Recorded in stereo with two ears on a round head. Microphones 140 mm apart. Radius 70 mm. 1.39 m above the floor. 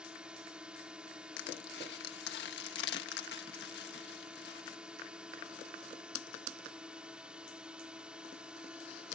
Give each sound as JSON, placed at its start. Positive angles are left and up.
{"t": 0.0, "sound": "a drone", "side_deg": -5}
{"t": 1.4, "sound": "crushing", "side_deg": 75}